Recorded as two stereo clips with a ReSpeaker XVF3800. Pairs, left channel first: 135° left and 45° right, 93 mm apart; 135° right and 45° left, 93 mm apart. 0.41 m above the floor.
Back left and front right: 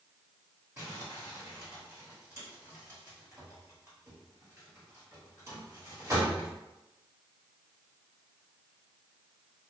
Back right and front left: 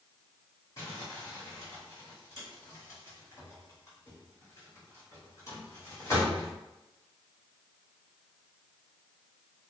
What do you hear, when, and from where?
0.8 s crumpling: 95° right, 1.8 m